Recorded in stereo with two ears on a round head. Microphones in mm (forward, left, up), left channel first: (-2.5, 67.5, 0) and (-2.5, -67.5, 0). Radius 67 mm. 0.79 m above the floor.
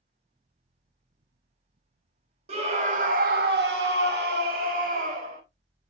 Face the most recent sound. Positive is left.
turn(degrees=-50)  # may be behind; listen again after turning